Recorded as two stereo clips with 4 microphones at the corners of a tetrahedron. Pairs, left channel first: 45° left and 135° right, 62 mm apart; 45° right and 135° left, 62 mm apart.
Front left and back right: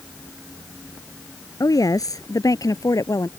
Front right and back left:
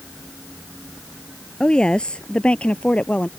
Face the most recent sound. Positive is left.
turn(degrees=25)